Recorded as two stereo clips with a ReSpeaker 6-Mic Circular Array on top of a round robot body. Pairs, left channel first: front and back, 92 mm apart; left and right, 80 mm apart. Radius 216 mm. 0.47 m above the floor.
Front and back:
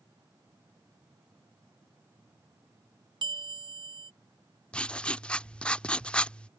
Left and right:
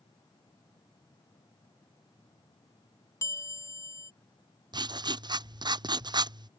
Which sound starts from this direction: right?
Writing, at 4.7 s.